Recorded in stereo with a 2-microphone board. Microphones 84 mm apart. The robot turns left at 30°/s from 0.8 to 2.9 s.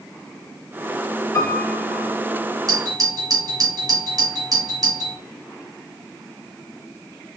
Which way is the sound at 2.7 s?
50° right (ahead or behind).